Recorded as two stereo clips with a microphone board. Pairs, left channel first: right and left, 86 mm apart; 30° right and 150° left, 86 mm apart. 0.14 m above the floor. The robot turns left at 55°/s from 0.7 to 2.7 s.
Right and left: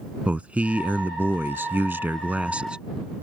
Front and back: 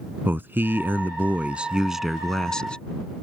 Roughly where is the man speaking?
Behind left.